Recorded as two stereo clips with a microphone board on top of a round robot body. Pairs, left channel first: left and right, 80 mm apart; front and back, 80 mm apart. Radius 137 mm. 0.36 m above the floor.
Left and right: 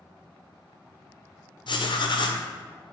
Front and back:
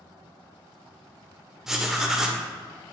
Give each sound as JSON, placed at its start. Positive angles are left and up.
{"t": 1.7, "sound": "writing", "azimuth_deg": 95, "distance_m": 0.9}